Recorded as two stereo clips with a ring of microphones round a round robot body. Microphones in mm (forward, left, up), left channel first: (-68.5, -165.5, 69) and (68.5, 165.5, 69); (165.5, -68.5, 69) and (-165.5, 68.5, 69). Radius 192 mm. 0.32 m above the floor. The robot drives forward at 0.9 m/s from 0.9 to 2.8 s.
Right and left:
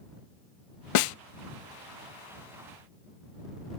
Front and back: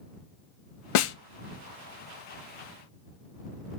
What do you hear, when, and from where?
0.9 s a snare drum: 65° right, 0.5 m; by 1.1 s 85° right, 0.5 m